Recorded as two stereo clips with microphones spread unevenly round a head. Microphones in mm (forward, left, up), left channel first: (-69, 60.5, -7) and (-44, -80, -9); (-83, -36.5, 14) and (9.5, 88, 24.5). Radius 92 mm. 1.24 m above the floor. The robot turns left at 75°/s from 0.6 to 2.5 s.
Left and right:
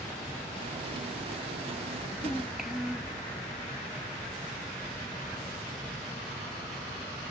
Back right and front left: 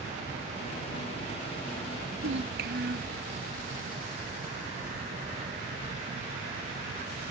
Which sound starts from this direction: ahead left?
A child speaking, at 2.2 s.